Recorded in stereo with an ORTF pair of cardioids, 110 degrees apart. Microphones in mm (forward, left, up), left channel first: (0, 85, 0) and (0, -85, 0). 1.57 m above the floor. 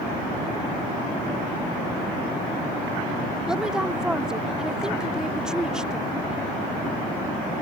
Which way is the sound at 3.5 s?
5° right.